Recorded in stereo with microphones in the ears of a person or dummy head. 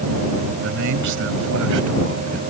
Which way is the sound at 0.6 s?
65° right (ahead or behind).